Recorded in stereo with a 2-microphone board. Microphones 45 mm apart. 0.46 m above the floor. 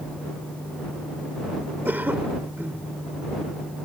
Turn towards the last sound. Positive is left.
turn(degrees=-50)  # may be behind; listen again after turning